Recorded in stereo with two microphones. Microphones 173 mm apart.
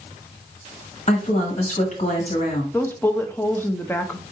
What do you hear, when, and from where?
1.1 s a woman speaking: 45° left (ahead or behind), 1.5 m
2.7 s a woman speaking: 10° left (ahead or behind), 0.6 m